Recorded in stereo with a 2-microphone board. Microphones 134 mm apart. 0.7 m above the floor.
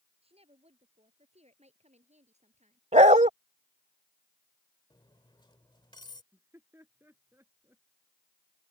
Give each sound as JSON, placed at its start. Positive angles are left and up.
{"t": 0.2, "sound": "a woman speaking", "side_deg": -45}
{"t": 2.9, "sound": "a dog barking", "side_deg": -60}
{"t": 4.9, "sound": "cutlery clinking", "side_deg": 35}
{"t": 6.3, "sound": "laughter", "side_deg": -15}